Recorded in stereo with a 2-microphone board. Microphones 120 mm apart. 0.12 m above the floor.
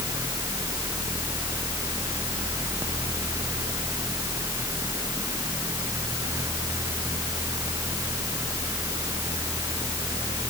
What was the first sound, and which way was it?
Only background noise.